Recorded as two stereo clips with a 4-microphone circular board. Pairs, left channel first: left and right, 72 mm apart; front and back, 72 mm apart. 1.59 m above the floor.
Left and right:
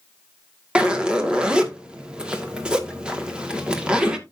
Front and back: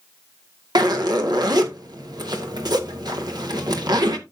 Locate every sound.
0.8 s a zipper: 165° right, 2 m